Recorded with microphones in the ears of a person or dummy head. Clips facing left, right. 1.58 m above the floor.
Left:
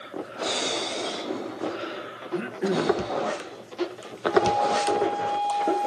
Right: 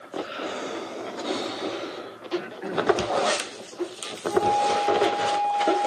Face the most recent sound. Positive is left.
turn(degrees=15)  # may be behind; listen again after turning